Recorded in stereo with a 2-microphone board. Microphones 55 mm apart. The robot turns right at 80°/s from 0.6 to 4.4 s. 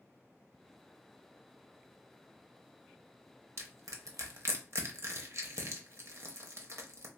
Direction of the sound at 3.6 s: 55° right (ahead or behind).